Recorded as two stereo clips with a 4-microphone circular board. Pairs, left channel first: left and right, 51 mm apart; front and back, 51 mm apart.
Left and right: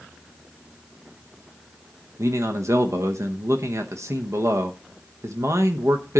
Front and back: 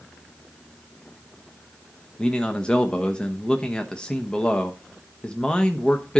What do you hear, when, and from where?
2.2 s a man speaking: 70° right, 1.0 m